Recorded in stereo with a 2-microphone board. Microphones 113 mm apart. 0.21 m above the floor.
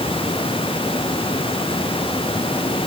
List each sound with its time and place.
Only background noise.